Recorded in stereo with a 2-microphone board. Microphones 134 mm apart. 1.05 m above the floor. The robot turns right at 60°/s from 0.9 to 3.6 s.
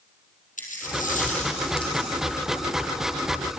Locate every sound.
0.6 s a dropped coin: 85° left, 4 m; by 2.2 s 160° left, 4 m